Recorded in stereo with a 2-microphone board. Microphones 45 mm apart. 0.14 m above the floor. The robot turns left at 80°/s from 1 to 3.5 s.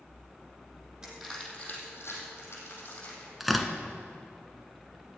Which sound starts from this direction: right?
Crushing, at 1.0 s.